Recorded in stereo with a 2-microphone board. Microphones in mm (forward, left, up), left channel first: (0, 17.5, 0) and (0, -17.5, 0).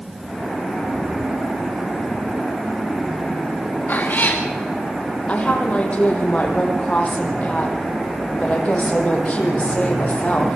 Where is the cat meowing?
55° left (ahead or behind), 5 m.